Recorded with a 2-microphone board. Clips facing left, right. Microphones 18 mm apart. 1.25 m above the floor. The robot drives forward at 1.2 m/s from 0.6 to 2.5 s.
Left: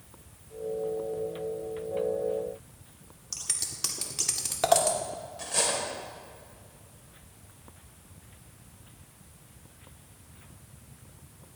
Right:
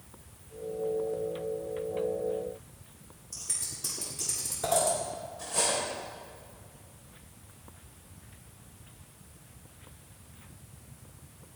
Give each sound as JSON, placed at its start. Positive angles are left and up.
{"t": 3.3, "sound": "scissors", "side_deg": 60, "distance_m": 1.8}
{"t": 5.4, "sound": "cutlery clinking", "side_deg": 50, "distance_m": 3.5}